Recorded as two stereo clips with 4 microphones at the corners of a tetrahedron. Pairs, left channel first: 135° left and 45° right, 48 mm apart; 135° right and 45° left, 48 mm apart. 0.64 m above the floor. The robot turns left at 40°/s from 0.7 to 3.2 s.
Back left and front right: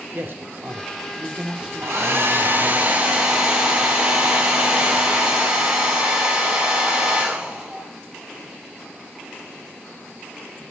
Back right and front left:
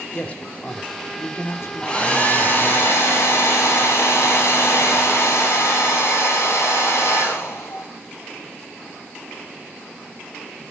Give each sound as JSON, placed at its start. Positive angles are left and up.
{"t": 0.1, "sound": "a man speaking", "azimuth_deg": -80, "distance_m": 1.7}
{"t": 1.8, "sound": "a hair dryer", "azimuth_deg": -65, "distance_m": 3.0}